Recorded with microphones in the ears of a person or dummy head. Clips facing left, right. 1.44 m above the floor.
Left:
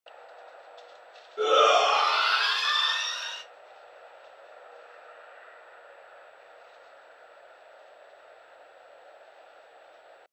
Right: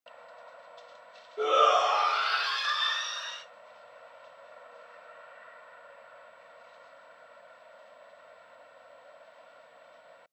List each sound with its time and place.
1.4 s a shout: 10° left (ahead or behind), 0.5 m; by 3.4 s 50° left (ahead or behind), 1.1 m